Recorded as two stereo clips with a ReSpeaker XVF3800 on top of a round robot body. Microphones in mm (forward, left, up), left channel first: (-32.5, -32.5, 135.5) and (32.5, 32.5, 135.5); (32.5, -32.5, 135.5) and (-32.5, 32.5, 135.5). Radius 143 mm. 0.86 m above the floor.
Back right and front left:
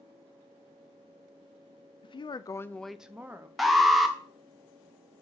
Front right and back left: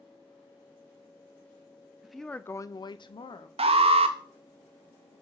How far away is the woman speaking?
About 0.8 m.